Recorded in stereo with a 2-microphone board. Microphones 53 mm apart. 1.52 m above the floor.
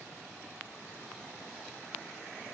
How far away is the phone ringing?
No phone ringing in this recording.